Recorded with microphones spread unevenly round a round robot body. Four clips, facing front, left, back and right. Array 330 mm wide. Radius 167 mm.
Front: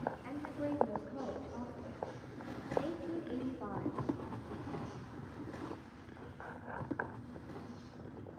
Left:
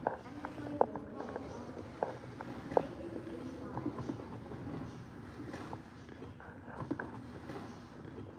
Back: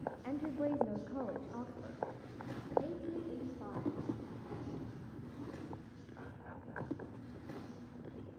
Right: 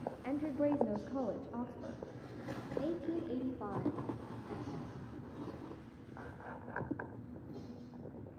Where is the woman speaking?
125° right, 1.6 m; by 4.0 s 65° right, 3 m.